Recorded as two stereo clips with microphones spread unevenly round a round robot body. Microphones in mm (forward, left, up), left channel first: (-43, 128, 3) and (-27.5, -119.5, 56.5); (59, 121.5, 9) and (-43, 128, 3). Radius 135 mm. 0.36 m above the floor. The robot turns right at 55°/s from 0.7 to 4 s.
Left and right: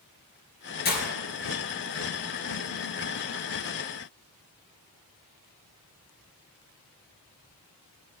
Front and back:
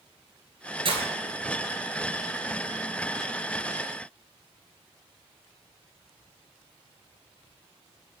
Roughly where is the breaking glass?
Behind left.